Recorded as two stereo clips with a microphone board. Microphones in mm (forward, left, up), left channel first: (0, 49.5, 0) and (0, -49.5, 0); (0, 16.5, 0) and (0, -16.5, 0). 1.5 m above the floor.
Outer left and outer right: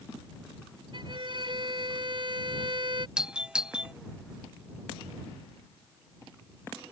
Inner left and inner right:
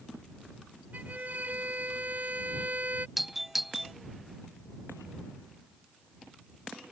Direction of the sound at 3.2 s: 10° right (ahead or behind).